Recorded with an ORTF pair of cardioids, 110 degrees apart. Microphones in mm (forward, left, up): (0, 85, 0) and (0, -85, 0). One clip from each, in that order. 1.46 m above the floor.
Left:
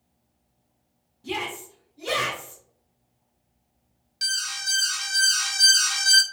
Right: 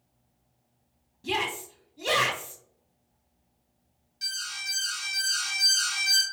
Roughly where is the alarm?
Ahead left.